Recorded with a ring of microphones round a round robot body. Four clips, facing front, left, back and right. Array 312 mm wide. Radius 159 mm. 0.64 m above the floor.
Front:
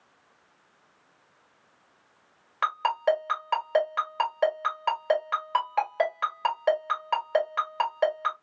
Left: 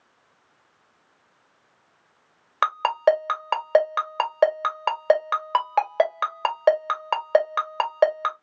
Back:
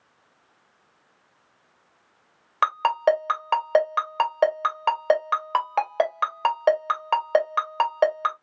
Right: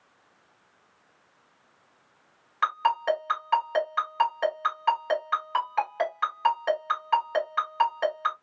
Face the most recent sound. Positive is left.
turn(degrees=120)